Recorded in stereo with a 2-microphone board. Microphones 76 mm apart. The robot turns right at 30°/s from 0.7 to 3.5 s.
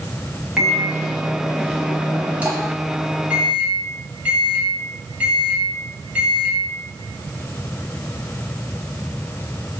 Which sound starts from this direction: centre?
A microwave, at 0.6 s.